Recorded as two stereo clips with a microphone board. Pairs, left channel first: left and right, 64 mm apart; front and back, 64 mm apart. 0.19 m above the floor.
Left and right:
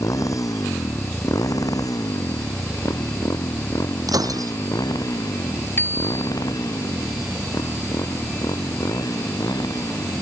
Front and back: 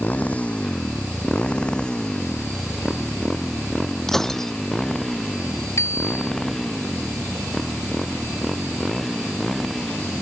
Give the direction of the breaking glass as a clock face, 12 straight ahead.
3 o'clock.